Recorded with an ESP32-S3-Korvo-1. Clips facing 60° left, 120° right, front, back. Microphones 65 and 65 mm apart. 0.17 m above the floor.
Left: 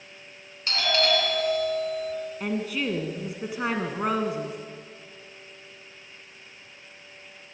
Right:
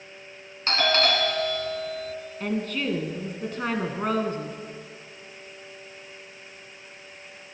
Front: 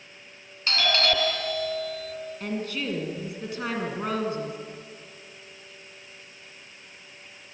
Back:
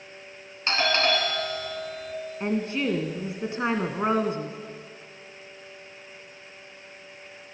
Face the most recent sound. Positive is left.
turn(degrees=135)